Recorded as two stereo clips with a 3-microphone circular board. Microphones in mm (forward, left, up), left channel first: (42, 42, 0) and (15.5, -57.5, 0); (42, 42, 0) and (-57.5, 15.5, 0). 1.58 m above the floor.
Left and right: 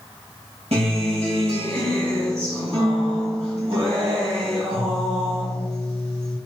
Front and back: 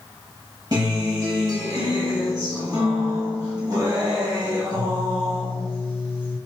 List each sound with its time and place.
0.7 s a guitar: 115° right, 1.9 m